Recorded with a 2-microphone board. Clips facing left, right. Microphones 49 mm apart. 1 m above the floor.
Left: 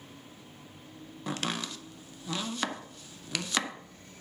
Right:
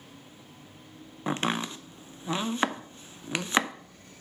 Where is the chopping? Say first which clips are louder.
Right 5 dB; 30° right (ahead or behind), 0.5 m.